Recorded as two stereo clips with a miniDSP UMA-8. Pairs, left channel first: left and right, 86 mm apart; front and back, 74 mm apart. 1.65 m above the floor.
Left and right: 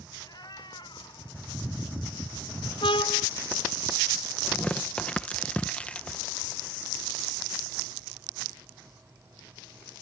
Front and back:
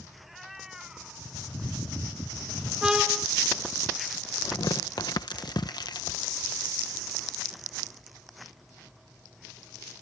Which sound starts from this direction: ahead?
Tearing paper, at 4.4 s.